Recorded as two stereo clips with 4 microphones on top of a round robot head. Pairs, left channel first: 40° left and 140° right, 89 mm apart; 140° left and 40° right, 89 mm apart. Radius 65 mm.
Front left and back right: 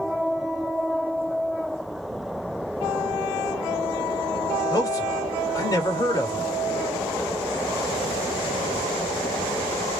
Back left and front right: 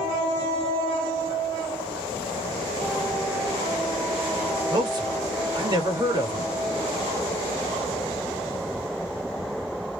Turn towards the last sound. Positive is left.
turn(degrees=-5)